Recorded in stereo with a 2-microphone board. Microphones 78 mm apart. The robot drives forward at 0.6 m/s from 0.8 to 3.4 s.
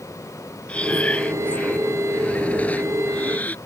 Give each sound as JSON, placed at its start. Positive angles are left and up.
{"t": 0.7, "sound": "breathing", "side_deg": 15}